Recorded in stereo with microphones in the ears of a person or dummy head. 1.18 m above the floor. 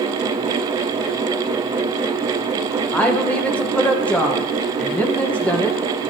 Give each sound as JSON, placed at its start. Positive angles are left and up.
{"t": 2.9, "sound": "a woman speaking", "side_deg": 10, "distance_m": 1.0}